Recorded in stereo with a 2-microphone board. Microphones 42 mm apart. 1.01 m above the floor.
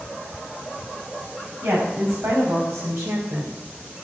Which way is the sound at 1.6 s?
85° right.